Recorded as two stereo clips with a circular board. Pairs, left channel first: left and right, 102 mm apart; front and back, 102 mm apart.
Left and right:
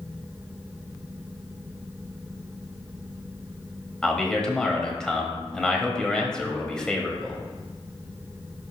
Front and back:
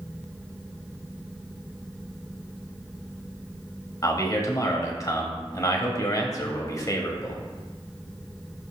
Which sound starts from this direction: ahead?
A man speaking, at 4.0 s.